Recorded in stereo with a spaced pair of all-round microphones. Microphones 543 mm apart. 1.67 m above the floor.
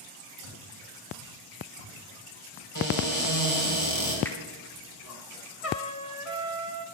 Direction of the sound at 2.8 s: 35° left (ahead or behind).